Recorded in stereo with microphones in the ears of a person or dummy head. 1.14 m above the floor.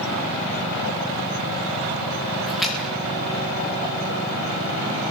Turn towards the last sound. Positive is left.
turn(degrees=0)  # may be behind; listen again after turning